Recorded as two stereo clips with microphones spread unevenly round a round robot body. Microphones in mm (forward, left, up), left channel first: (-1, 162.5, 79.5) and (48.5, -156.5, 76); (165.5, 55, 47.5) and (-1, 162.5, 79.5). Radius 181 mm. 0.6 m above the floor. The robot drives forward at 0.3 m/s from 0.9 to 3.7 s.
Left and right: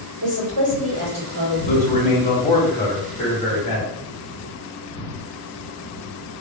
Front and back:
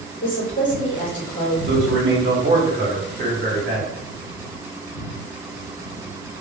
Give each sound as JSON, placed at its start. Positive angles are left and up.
{"t": 0.2, "sound": "a woman speaking", "azimuth_deg": -40, "distance_m": 1.9}
{"t": 1.7, "sound": "a man speaking", "azimuth_deg": 160, "distance_m": 1.2}